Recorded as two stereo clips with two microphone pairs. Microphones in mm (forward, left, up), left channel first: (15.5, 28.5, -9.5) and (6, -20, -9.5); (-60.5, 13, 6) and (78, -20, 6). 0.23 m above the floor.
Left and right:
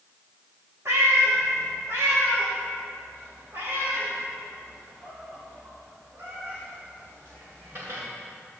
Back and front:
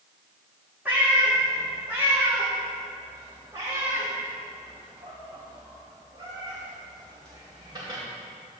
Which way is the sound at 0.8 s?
90° right.